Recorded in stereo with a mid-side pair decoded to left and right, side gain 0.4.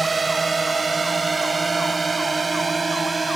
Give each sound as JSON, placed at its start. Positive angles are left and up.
{"t": 0.0, "sound": "a drone", "azimuth_deg": -25}